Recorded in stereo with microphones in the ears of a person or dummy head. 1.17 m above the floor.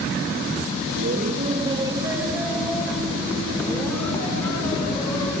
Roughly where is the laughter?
Right.